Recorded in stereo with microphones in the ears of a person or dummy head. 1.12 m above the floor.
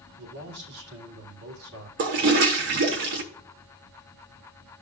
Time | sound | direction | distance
0.2 | a man speaking | 85° right | 2.5 m
2.0 | a toilet flushing | 50° right (ahead or behind) | 0.8 m